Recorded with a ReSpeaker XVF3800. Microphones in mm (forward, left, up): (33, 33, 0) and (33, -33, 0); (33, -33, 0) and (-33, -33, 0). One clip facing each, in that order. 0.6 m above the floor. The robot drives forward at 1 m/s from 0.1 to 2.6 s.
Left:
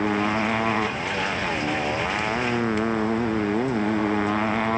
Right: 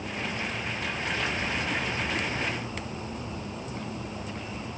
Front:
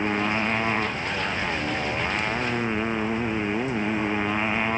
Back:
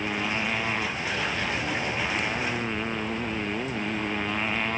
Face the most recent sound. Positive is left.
turn(degrees=75)